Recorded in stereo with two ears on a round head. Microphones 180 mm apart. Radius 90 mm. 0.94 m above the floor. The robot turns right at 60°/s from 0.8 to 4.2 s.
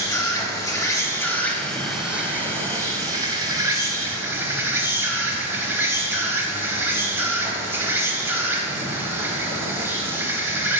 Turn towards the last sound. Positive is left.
turn(degrees=-10)  # may be behind; listen again after turning